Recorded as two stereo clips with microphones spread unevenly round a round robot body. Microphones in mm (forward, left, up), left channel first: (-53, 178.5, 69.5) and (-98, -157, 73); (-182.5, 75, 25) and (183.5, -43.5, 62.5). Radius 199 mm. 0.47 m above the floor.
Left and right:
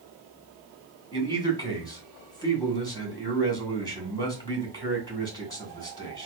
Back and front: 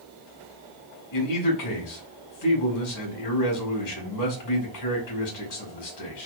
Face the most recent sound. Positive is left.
turn(degrees=160)